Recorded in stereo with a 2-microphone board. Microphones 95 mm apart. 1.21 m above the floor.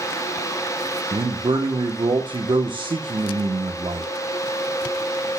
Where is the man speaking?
60° right (ahead or behind), 1.0 m.